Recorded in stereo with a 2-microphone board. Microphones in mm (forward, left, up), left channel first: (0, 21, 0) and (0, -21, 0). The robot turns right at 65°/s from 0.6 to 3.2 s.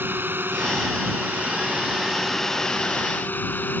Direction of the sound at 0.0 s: 115° right.